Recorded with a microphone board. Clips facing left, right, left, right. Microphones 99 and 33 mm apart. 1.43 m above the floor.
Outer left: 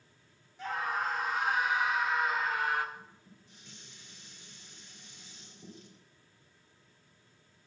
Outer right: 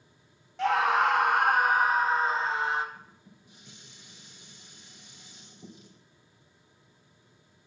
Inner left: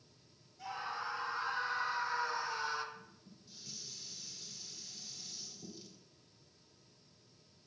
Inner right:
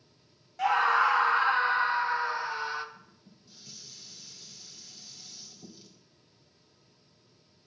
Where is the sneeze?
No sneeze in this recording.